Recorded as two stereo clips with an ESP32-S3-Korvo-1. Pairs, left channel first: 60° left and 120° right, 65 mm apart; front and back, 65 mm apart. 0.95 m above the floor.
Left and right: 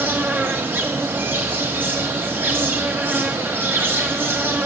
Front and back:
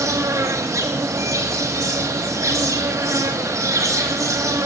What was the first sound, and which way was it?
An insect, 170° right.